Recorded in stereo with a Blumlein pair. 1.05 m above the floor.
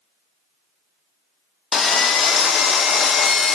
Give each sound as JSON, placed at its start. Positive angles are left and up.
{"t": 1.7, "sound": "sawing", "azimuth_deg": 20, "distance_m": 0.6}